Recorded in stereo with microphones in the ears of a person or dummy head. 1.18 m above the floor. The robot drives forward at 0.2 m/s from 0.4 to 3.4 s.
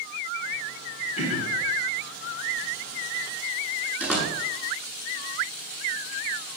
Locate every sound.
1.2 s throat clearing: 40° left (ahead or behind), 4 m
4.0 s a door slam: 5° left (ahead or behind), 8.5 m